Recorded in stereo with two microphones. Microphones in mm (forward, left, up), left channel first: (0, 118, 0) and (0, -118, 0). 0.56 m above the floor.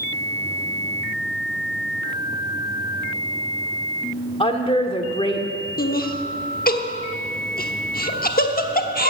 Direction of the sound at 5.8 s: 35° left (ahead or behind).